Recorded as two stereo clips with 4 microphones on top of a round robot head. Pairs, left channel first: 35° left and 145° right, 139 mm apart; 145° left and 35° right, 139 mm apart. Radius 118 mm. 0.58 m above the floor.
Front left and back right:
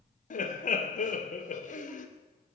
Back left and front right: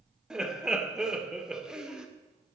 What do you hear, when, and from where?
0.3 s laughter: 50° left, 2 m